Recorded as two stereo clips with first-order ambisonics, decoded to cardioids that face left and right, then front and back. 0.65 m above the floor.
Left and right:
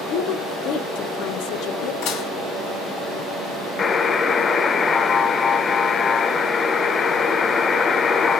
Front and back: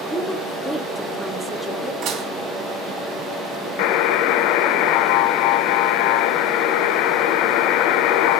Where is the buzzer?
20° left, 0.6 m.